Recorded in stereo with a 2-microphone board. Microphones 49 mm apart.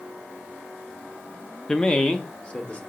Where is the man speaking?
10° left (ahead or behind), 0.5 m; by 2.8 s 25° left (ahead or behind), 1.4 m.